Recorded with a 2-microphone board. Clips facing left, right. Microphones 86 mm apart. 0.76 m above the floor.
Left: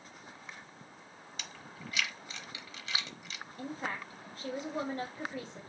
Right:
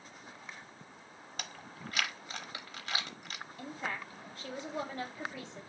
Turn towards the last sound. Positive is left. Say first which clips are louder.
# left 2 dB
turn(degrees=45)  # may be behind; listen again after turning